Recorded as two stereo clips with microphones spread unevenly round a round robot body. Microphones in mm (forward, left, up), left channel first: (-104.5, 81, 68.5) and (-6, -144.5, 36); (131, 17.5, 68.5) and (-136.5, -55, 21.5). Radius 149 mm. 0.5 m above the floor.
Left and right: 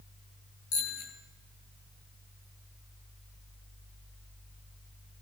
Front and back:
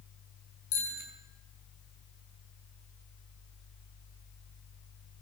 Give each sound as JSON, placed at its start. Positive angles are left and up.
{"t": 0.7, "sound": "a bicycle bell", "azimuth_deg": 65, "distance_m": 6.5}